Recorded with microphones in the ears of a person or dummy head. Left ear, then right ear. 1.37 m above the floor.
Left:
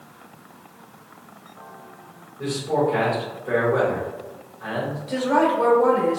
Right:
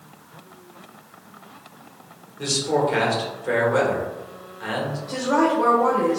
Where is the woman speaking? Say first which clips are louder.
Left 1 dB; 40° left (ahead or behind), 1.3 m.